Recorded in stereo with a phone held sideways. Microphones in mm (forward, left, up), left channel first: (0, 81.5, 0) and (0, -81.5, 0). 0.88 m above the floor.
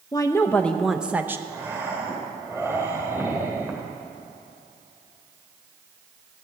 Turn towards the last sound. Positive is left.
turn(degrees=-15)  # may be behind; listen again after turning